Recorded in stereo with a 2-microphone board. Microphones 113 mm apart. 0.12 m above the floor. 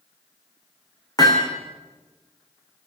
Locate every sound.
1.2 s hammering: 35° left (ahead or behind), 4.5 m